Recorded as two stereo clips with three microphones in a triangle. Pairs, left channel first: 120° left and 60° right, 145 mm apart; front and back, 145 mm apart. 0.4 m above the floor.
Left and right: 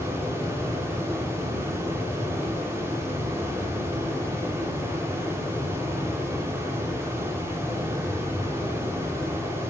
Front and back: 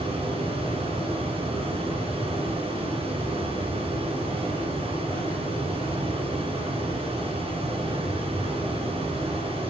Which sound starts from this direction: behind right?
Running water, at 0.0 s.